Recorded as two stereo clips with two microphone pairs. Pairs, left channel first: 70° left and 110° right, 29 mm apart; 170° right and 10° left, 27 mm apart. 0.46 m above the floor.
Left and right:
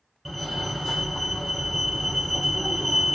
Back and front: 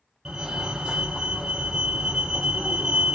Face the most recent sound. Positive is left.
turn(degrees=-15)